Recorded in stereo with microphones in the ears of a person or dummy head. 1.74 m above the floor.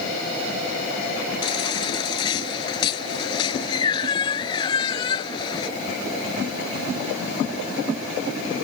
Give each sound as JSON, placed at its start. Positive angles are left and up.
{"t": 1.4, "sound": "a baby crying", "side_deg": 25}